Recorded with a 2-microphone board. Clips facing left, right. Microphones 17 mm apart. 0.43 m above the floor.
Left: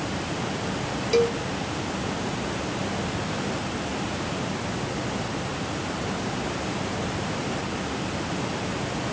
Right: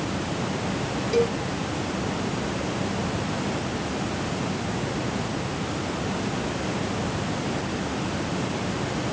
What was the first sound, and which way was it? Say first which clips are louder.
A cowbell: left 1 dB; 35° left (ahead or behind).